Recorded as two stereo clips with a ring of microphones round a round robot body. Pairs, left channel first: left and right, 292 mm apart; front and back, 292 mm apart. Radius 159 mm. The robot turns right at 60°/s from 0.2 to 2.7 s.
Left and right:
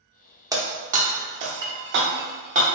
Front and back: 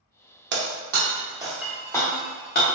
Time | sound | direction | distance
0.5 | breaking glass | 160° right | 0.5 m